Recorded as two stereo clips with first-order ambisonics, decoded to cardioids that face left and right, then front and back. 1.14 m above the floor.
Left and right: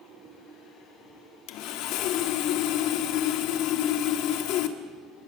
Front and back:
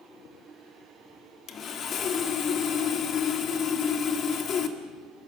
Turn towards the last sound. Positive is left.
turn(degrees=60)